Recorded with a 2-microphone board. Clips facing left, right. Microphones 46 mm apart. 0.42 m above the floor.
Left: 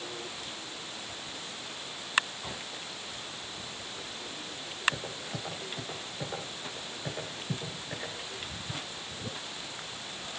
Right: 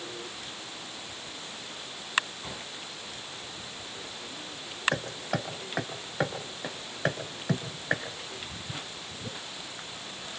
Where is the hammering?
80° right, 3.5 m.